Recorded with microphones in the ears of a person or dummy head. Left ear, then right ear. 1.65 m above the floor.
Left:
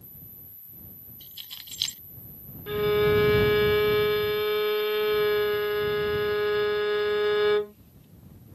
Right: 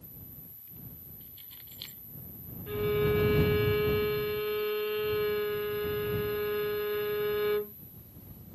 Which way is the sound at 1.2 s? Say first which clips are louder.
Left 16 dB; 55° left (ahead or behind).